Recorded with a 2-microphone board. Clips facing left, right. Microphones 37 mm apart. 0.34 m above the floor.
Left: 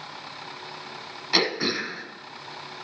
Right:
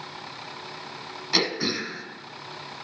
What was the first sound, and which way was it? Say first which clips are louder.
Throat clearing: left 1 dB; 10° left (ahead or behind).